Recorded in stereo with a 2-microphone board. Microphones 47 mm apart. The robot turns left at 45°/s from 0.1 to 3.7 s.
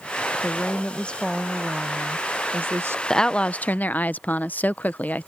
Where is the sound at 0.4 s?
55° left; by 3.0 s 60° right.